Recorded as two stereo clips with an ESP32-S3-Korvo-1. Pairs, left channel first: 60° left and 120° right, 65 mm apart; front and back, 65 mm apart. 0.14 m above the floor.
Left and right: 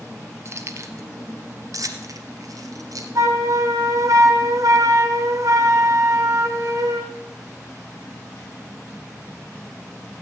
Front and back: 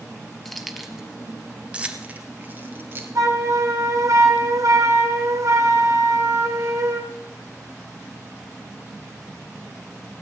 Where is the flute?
150° right, 2.0 m.